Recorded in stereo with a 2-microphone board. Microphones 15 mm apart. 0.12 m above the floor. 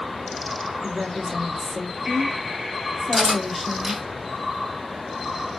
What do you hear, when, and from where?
0.8 s a woman speaking: 15° right (ahead or behind), 1.9 m
3.1 s cutlery clinking: 30° right (ahead or behind), 2.5 m